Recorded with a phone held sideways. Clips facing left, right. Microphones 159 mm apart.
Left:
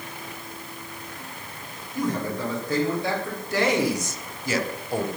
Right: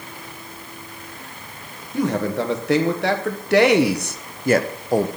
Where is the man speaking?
75° right (ahead or behind), 1.9 m; by 5.1 s 35° right (ahead or behind), 0.7 m.